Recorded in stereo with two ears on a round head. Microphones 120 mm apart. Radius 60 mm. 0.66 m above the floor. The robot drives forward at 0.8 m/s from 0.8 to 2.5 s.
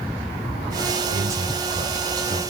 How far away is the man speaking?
About 4.5 m.